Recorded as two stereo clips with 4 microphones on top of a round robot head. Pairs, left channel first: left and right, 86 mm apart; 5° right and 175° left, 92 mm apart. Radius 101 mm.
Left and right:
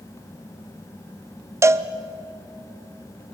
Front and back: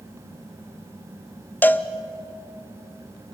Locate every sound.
1.6 s a cowbell: 60° right, 0.7 m